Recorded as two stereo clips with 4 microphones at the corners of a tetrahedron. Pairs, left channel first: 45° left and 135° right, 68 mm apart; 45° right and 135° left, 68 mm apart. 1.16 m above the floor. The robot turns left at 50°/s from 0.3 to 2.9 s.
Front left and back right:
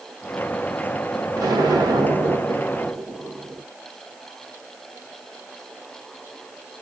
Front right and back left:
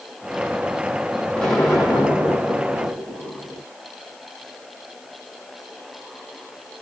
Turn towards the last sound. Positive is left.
turn(degrees=160)